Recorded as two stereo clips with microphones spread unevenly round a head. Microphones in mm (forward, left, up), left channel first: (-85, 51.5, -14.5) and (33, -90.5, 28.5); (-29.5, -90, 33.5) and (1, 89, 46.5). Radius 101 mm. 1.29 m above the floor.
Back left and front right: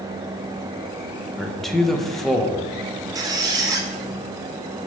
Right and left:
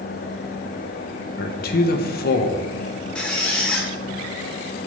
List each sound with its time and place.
1.4 s a man speaking: 140° right, 0.8 m
3.1 s a squeak: 10° right, 0.8 m